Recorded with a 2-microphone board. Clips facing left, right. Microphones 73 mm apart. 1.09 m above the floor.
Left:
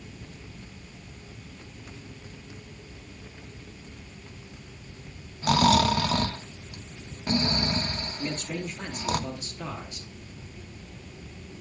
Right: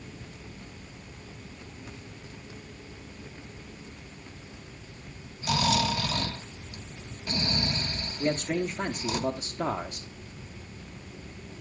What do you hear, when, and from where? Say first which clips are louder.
5.4 s snoring: left 6 dB; 50° left (ahead or behind), 1.3 m
8.2 s a man speaking: right 7 dB; 40° right (ahead or behind), 0.8 m